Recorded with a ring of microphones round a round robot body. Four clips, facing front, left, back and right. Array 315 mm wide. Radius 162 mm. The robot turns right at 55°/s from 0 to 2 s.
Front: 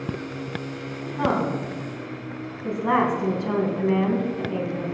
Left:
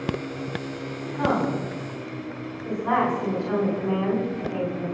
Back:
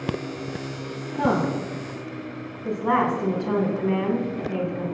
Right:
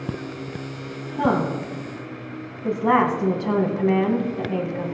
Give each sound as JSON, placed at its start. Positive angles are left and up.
{"t": 1.2, "sound": "a woman speaking", "azimuth_deg": -130, "distance_m": 5.0}